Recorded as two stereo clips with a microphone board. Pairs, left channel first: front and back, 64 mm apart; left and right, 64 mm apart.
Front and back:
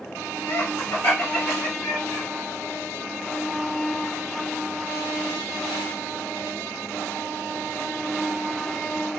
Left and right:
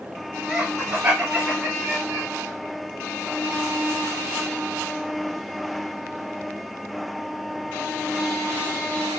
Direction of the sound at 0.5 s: 15° right.